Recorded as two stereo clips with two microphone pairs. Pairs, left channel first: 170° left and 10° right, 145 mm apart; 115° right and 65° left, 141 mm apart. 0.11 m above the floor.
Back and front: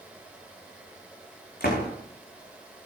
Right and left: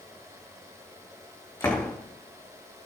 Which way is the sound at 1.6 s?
175° left.